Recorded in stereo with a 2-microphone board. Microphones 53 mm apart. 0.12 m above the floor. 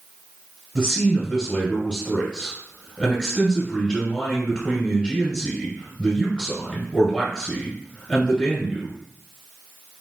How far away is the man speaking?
About 1.5 m.